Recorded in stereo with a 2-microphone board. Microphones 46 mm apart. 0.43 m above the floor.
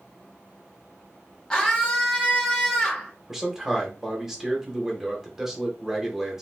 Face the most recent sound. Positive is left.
turn(degrees=-10)  # may be behind; listen again after turning